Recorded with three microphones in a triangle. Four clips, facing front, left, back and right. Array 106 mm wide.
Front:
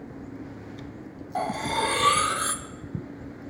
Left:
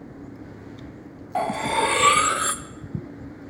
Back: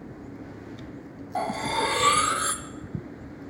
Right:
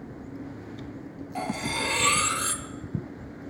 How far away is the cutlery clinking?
About 0.6 m.